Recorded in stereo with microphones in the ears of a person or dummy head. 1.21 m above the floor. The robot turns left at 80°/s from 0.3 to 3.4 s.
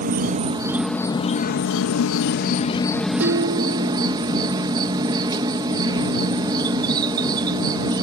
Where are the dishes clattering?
80° right; by 4.3 s 75° right (ahead or behind).